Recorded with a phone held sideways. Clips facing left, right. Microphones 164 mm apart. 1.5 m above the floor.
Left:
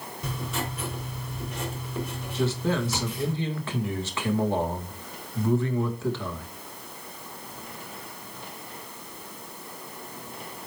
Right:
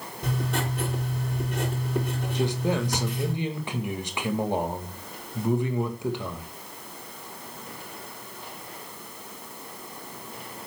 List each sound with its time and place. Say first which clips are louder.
0.2 s writing: right 4 dB; 55° right (ahead or behind), 4 m
2.3 s a man speaking: left 1 dB; 15° right (ahead or behind), 1.9 m